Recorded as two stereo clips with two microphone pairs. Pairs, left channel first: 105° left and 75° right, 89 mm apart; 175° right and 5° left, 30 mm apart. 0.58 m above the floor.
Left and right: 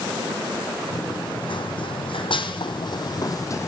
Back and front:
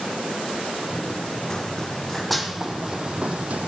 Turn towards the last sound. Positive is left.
turn(degrees=50)